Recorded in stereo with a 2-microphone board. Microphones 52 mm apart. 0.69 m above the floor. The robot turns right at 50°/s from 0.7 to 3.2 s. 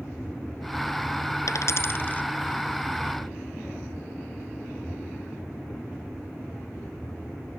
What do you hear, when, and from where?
1.5 s a dropped coin: 70° left (ahead or behind); by 2.3 s 30° left (ahead or behind)